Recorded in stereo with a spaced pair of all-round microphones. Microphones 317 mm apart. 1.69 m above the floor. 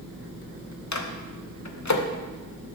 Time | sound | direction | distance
0.9 | a microwave | 55° left (ahead or behind) | 0.7 m